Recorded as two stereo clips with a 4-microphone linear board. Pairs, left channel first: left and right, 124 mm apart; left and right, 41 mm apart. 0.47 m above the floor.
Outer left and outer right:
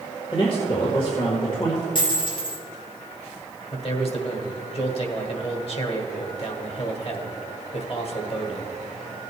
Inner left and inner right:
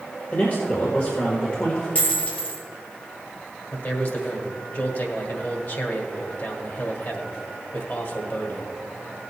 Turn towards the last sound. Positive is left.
turn(degrees=50)  # may be behind; listen again after turning